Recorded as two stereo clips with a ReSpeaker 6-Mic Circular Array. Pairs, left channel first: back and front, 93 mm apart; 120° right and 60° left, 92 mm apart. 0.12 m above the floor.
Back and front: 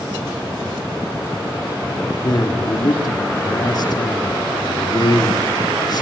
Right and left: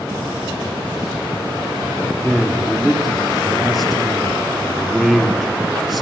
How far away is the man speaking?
About 3 m.